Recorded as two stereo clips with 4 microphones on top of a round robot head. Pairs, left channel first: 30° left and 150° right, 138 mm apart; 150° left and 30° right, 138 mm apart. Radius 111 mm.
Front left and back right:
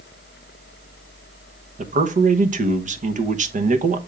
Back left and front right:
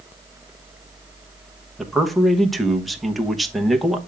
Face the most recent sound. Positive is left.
turn(degrees=-120)